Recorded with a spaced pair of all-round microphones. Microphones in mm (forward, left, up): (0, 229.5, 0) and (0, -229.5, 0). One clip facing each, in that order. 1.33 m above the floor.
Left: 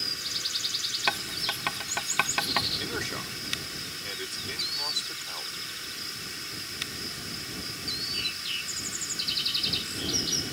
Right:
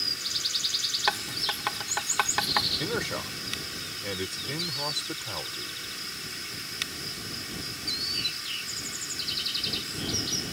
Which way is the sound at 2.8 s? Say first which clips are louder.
Right 4 dB; 70° right (ahead or behind).